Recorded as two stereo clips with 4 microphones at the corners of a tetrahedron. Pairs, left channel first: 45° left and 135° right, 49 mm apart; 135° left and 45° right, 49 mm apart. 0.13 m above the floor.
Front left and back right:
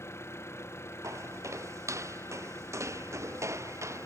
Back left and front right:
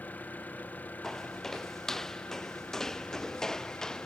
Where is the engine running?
75° left.